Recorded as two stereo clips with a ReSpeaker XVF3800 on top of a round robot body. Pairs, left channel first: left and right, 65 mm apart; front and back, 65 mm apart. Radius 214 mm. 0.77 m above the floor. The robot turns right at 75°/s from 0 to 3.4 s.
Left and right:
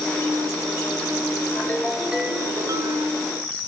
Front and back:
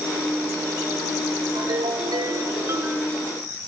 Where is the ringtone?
145° left, 1.1 m; by 3.1 s 95° right, 1.1 m.